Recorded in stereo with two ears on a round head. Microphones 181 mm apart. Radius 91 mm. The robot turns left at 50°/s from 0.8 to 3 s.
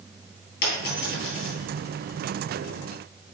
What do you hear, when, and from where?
0.6 s a dropped coin: 50° left (ahead or behind), 3.5 m; by 1.5 s 85° left, 3.5 m